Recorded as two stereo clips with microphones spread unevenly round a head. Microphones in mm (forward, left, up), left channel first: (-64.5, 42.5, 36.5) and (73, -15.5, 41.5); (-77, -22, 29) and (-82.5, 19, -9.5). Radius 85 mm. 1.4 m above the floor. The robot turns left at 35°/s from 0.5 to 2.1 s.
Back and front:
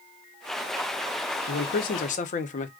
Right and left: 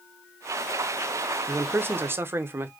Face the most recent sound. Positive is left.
turn(degrees=115)